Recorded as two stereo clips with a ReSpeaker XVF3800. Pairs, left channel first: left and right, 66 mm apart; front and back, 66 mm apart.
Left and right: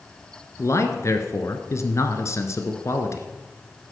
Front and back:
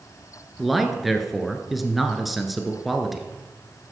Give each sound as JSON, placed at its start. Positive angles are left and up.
{"t": 0.6, "sound": "a man speaking", "azimuth_deg": 95, "distance_m": 1.6}